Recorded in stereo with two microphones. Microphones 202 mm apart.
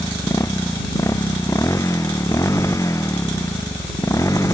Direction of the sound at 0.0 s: 15° left (ahead or behind).